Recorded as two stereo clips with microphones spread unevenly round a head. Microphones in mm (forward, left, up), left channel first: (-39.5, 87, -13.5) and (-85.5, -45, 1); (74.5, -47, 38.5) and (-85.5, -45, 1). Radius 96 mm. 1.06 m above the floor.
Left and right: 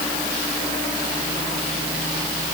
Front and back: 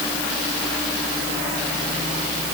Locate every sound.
Only background noise.